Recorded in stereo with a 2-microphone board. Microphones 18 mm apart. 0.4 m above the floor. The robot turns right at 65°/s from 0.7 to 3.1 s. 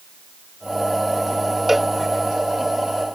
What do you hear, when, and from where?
1.7 s a cowbell: 15° right (ahead or behind); by 1.9 s centre (ahead or behind)